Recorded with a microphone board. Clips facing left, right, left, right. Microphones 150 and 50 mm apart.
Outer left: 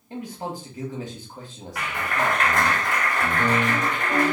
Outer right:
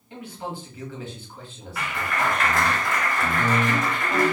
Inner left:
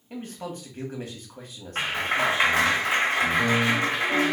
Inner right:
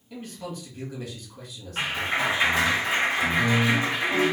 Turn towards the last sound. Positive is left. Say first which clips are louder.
# outer left 1 dB, inner left 1 dB
turn(degrees=60)  # may be behind; listen again after turning